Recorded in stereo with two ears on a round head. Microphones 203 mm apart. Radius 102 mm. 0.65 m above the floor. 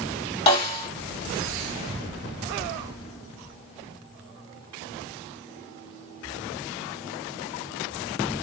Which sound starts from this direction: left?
A snare drum, at 0.5 s.